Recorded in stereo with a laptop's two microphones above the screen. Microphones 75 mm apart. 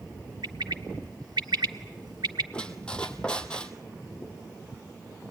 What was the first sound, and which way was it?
A bird, 75° right (ahead or behind).